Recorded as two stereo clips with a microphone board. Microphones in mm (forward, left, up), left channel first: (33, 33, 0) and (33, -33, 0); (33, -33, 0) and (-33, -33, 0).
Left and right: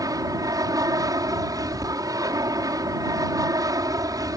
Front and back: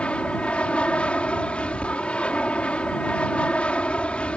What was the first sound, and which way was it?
An aircraft, 70° right.